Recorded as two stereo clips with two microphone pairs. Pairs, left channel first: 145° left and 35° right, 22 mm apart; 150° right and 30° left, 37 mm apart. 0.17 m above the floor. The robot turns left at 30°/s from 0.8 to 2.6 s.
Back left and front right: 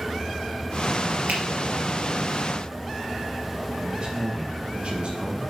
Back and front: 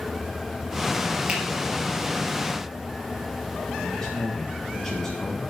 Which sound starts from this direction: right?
A man speaking, at 3.8 s.